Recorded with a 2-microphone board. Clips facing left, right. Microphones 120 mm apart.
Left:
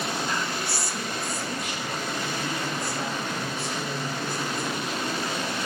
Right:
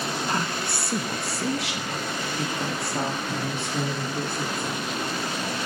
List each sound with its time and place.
0.3 s a woman speaking: 35° right (ahead or behind), 1.3 m; by 4.8 s 60° right (ahead or behind), 5 m